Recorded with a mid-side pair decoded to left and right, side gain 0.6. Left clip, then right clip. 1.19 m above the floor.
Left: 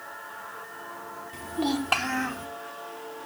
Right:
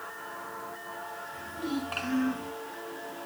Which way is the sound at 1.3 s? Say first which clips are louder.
Left 8 dB; 55° left.